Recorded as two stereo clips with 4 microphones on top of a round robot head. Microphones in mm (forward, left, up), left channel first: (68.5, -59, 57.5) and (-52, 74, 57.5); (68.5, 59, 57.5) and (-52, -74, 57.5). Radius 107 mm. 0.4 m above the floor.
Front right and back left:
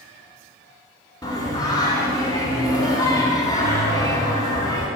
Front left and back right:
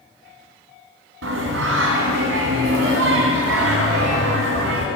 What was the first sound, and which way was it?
Singing, 120° right.